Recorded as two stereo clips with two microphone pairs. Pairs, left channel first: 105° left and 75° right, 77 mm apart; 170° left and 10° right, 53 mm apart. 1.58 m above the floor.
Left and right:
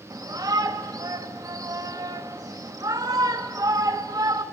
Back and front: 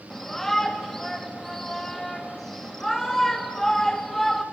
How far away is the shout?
About 3 m.